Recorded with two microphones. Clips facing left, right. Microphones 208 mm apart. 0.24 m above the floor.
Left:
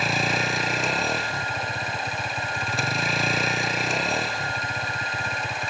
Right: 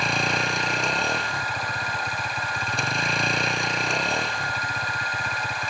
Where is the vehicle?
5° left (ahead or behind).